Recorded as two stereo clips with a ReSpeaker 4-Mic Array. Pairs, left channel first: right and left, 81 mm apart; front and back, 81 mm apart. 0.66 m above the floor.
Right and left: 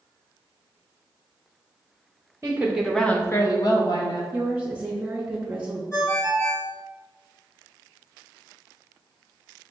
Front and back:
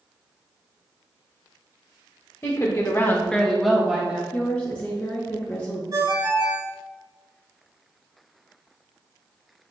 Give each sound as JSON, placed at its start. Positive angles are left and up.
{"t": 2.4, "sound": "a woman speaking", "azimuth_deg": 40, "distance_m": 0.9}
{"t": 4.3, "sound": "a woman speaking", "azimuth_deg": 40, "distance_m": 0.7}
{"t": 5.9, "sound": "a ringtone", "azimuth_deg": -140, "distance_m": 2.0}